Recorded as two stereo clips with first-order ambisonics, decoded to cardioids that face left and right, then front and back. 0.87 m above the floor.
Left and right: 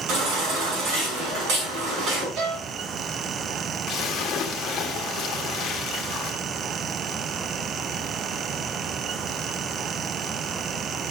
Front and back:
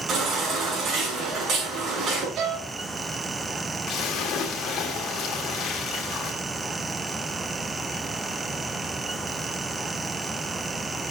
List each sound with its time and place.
0.1 s a baby crying: 115° right, 6 m
2.4 s a violin: 135° right, 4.5 m
3.9 s a splash: 35° left, 1.8 m